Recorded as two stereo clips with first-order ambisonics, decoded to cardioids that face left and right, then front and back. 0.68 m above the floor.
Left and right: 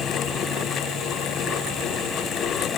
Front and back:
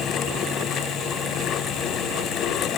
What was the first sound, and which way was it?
Only background noise.